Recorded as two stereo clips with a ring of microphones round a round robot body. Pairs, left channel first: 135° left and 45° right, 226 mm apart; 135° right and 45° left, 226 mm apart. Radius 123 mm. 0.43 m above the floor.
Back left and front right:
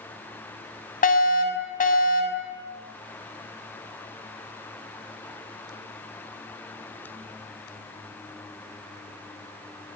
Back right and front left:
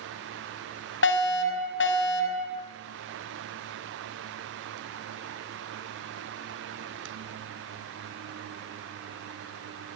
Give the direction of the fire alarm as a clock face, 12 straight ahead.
6 o'clock.